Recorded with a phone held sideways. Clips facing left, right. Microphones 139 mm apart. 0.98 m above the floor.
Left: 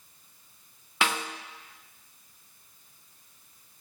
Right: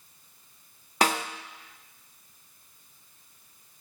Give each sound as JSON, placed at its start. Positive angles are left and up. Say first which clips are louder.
{"t": 1.0, "sound": "a snare drum", "louder": "right 4 dB", "side_deg": -40, "distance_m": 0.5}